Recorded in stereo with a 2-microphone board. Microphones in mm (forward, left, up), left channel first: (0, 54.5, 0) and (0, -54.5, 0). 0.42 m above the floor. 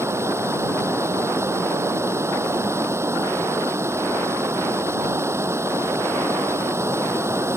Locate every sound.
0.0 s running water: 25° right (ahead or behind)